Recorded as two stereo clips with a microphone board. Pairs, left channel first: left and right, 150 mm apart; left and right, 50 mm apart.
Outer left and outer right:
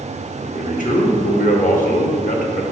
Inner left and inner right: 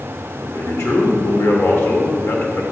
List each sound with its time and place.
0.4 s a man speaking: 65° left (ahead or behind), 1.1 m